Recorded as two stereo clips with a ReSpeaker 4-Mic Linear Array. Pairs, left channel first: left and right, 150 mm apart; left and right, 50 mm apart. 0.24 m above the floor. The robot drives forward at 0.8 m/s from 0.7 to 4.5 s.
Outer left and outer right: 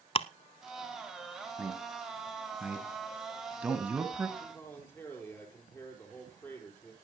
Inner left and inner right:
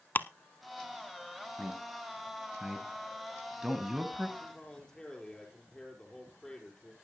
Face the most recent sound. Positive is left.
turn(degrees=15)  # may be behind; listen again after turning